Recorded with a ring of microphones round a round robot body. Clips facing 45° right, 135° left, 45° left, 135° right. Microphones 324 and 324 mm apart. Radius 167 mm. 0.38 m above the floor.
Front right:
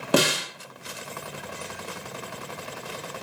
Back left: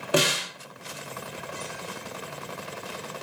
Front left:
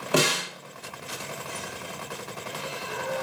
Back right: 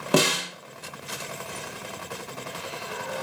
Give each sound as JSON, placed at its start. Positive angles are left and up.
{"t": 0.1, "sound": "a snare drum", "azimuth_deg": -90, "distance_m": 0.9}